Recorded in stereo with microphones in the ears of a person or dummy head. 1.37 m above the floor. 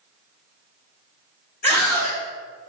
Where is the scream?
5° left (ahead or behind), 1.4 m.